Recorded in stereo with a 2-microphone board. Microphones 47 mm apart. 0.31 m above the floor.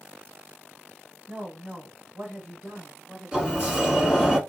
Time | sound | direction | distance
1.3 | a woman speaking | 20° right (ahead or behind) | 1.8 m
3.3 | a sliding door | 15° right (ahead or behind) | 1.3 m